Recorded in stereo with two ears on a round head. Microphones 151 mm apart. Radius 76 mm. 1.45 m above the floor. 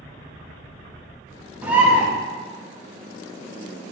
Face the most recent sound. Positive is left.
turn(degrees=-10)  # may be behind; listen again after turning